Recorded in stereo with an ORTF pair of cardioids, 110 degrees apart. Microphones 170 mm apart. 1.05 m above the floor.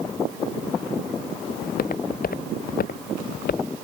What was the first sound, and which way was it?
Footsteps, 60° left.